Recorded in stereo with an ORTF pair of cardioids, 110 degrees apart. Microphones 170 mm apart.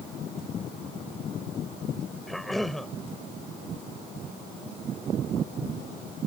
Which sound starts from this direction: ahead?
A cough, at 2.3 s.